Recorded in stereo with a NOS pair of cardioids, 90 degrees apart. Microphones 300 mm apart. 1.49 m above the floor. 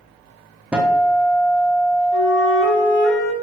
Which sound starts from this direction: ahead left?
A flute, at 2.1 s.